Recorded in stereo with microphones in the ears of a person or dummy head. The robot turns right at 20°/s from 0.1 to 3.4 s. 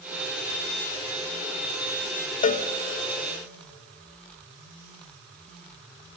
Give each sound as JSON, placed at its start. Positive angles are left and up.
{"t": 2.4, "sound": "a cowbell", "side_deg": 40, "distance_m": 0.9}